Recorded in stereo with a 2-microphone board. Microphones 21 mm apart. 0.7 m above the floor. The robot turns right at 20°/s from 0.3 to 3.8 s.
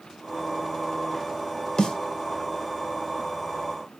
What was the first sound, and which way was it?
A snare drum, 40° left (ahead or behind).